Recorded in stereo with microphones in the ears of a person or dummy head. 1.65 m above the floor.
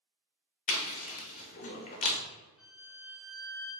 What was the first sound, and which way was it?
Chewing, 45° left (ahead or behind).